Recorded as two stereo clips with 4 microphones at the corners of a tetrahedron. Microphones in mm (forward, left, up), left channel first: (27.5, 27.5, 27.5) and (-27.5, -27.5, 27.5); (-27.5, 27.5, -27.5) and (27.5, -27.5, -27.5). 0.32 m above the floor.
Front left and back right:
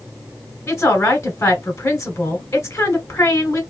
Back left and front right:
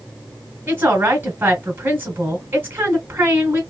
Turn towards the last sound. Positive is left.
turn(degrees=5)